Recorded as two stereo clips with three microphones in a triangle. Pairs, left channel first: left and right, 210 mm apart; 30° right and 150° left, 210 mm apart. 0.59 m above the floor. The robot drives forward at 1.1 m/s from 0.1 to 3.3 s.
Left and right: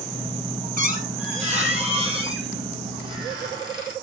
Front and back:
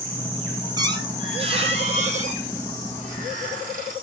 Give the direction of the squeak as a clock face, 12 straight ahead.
5 o'clock.